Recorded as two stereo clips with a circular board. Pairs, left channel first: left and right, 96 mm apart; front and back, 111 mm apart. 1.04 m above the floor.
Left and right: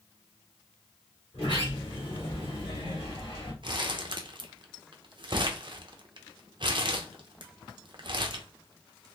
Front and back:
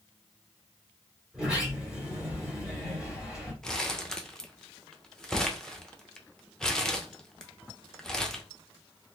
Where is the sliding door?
95° left, 2.0 m.